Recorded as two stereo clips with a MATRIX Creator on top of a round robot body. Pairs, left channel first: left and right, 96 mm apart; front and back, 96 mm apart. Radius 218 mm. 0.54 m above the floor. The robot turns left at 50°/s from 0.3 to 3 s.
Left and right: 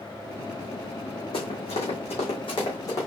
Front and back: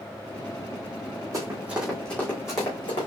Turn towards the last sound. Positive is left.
turn(degrees=30)